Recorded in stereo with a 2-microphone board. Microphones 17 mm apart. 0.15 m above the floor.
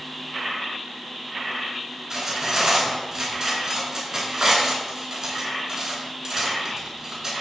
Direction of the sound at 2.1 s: 40° right (ahead or behind).